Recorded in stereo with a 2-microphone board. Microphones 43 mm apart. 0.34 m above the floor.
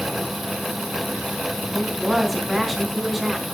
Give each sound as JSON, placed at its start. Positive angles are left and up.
{"t": 1.7, "sound": "a woman speaking", "side_deg": -5, "distance_m": 3.0}